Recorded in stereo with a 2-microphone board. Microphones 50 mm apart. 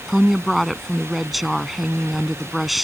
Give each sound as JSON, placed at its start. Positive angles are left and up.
{"t": 0.1, "sound": "a woman speaking", "side_deg": 0}